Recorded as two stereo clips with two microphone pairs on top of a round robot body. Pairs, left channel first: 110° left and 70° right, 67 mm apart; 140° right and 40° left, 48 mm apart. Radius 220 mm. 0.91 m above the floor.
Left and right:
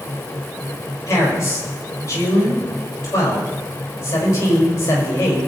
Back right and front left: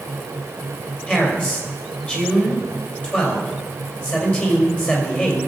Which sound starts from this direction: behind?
A man speaking, at 1.1 s.